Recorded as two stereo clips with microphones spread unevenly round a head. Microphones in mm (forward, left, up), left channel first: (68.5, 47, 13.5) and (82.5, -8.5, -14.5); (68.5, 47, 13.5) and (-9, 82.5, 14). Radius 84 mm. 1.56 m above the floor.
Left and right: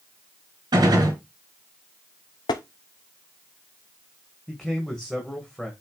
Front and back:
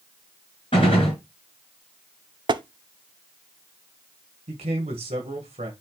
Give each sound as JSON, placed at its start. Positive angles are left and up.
{"t": 0.7, "sound": "a gunshot", "azimuth_deg": -85, "distance_m": 5.0}
{"t": 2.5, "sound": "tapping", "azimuth_deg": 125, "distance_m": 0.7}
{"t": 4.5, "sound": "a man speaking", "azimuth_deg": -170, "distance_m": 1.6}